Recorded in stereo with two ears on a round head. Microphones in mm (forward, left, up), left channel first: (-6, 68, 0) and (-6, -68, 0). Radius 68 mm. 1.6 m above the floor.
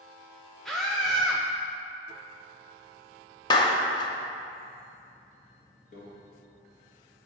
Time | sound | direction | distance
0.7 | a scream | centre (ahead or behind) | 0.5 m
3.5 | a clap | 30° left (ahead or behind) | 0.7 m
5.9 | a microwave | 55° left (ahead or behind) | 1.9 m